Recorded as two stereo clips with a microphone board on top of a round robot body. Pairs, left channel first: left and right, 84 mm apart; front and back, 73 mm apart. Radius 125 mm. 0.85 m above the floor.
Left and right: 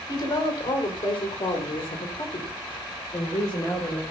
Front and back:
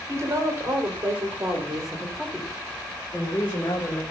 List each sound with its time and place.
0.1 s a woman speaking: 130° left, 5 m; by 4.0 s 50° left, 4.5 m